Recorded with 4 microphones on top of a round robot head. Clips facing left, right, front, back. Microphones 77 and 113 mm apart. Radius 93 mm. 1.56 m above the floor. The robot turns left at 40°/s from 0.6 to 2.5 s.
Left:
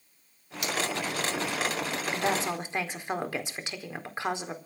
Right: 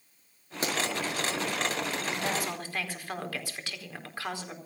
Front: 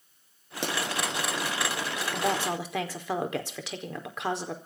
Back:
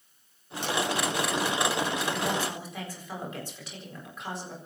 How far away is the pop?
About 6 m.